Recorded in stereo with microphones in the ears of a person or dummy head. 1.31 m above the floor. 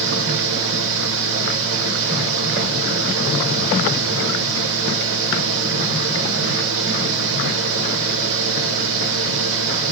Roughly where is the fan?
Right.